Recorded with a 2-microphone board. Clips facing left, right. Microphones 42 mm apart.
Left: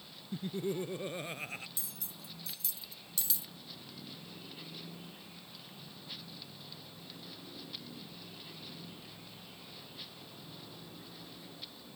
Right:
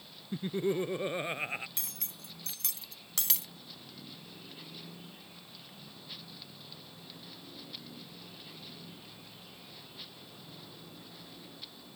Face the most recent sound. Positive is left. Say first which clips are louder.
# right 2 dB
turn(degrees=-70)  # may be behind; listen again after turning